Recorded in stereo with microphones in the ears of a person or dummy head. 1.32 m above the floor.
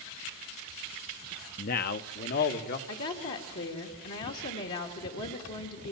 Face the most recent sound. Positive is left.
turn(degrees=65)  # may be behind; listen again after turning